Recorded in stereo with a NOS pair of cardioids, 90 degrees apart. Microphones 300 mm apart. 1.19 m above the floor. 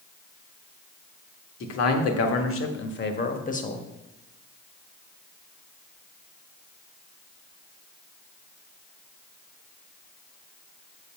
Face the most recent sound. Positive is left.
turn(degrees=20)